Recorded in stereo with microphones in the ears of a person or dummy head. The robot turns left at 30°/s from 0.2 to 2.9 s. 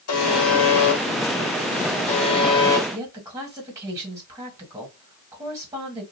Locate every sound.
0.1 s a buzzer: 100° left, 1.1 m; by 2.8 s 20° left, 1.1 m
2.9 s a woman speaking: 20° right (ahead or behind), 1.7 m